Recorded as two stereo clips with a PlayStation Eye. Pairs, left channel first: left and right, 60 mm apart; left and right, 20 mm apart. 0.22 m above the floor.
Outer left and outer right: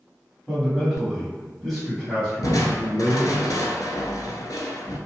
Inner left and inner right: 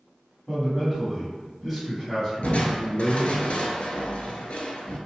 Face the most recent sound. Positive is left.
turn(degrees=80)